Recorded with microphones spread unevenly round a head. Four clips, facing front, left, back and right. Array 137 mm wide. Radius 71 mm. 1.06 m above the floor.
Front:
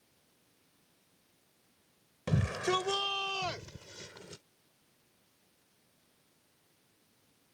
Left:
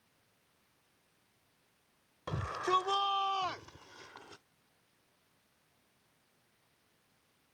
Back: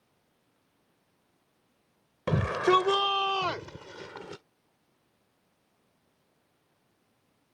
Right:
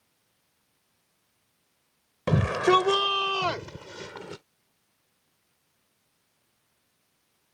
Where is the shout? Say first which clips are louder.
Right 11 dB, back 8 dB; 105° right; by 4.4 s 110° right.